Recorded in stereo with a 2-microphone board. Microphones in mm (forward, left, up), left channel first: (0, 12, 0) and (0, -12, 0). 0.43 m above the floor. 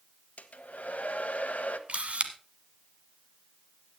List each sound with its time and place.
0.4 s a hair dryer: 75° left (ahead or behind), 1.2 m
1.9 s a camera shutter: 55° right (ahead or behind), 1.3 m